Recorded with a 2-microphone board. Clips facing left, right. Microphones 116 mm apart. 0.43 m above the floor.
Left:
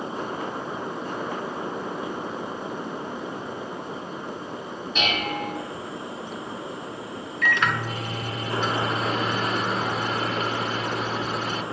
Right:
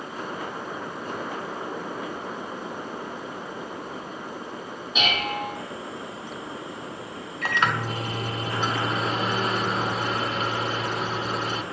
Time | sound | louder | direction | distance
5.0 | dishes clattering | even | 5° right (ahead or behind) | 1.9 m
7.4 | a microwave | even | 35° right (ahead or behind) | 0.7 m